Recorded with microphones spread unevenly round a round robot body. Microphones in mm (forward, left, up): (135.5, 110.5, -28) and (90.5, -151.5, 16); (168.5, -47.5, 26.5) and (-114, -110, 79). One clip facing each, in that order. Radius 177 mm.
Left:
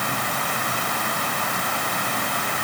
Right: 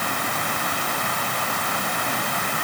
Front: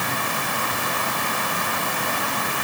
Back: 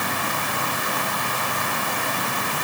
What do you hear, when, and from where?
Only background noise.